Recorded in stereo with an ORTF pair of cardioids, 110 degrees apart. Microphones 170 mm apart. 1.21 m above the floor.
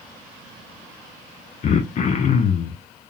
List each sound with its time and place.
1.6 s throat clearing: 45° left, 0.9 m